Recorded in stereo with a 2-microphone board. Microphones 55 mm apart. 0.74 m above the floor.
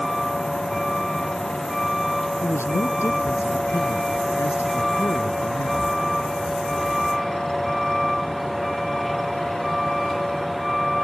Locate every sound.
0.0 s a vehicle: 5° left (ahead or behind)
2.4 s a man speaking: 55° left (ahead or behind)